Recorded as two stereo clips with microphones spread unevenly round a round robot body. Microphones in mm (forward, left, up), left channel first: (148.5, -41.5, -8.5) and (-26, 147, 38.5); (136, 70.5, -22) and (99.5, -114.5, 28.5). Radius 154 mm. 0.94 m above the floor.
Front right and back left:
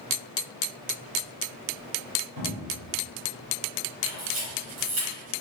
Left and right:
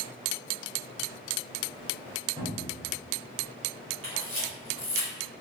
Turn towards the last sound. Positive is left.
turn(degrees=-175)